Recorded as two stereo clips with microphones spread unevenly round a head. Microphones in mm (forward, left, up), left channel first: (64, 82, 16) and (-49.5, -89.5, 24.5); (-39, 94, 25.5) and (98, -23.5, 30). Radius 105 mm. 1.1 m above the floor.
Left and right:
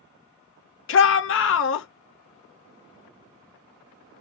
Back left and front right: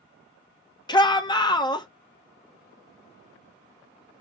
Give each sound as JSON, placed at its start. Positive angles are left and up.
{"t": 0.9, "sound": "a shout", "azimuth_deg": 75, "distance_m": 0.8}